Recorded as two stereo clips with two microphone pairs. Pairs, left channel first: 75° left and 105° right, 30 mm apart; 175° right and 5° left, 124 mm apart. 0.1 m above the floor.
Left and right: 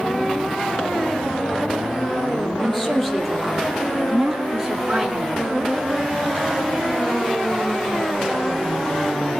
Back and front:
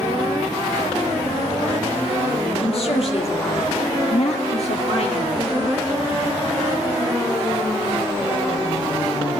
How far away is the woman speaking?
About 3.5 m.